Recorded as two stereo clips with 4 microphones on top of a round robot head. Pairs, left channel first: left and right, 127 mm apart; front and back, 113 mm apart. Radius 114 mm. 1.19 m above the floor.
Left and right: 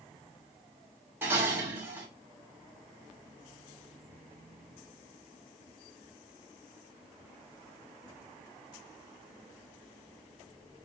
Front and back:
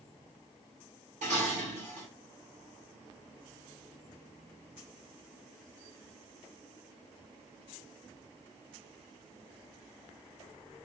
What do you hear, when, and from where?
1.2 s dishes clattering: 160° right, 3 m